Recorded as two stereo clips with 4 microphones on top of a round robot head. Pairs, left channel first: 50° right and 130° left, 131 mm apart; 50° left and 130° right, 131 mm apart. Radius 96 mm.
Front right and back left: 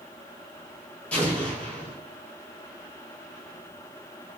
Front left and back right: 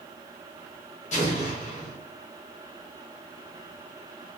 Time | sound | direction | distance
1.1 | an explosion | 30° left | 1.8 m